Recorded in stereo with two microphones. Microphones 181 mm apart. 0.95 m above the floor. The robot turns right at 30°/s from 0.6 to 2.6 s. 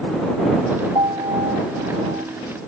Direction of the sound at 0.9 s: 150° right.